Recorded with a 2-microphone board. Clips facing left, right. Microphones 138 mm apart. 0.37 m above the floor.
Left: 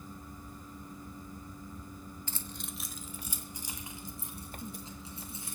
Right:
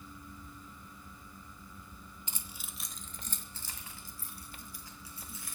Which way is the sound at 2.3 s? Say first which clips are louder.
Left 6 dB; 20° right (ahead or behind).